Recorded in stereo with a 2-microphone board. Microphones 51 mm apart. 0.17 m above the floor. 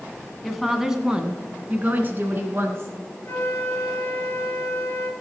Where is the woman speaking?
5° left (ahead or behind), 1.2 m; by 3.0 s 50° right (ahead or behind), 1.9 m.